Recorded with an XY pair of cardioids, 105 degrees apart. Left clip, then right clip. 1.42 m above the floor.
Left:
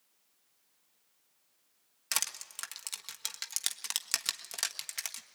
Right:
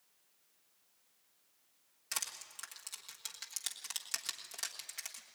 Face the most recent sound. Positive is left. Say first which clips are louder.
# left 7 dB
turn(degrees=60)